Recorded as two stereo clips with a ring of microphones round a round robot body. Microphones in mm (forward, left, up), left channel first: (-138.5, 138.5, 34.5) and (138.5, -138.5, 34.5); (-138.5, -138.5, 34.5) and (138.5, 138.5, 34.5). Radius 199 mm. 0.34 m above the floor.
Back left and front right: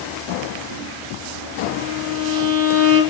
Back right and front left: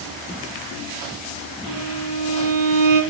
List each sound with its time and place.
1.7 s a violin: 60° left, 7 m